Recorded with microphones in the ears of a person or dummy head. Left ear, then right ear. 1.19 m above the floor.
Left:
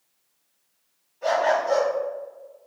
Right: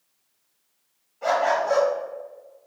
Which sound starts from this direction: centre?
A dog barking, at 1.2 s.